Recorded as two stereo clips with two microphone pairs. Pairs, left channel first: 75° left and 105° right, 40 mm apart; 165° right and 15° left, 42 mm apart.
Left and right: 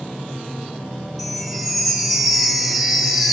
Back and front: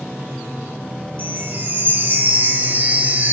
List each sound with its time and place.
1.2 s a chime: 15° right, 1.2 m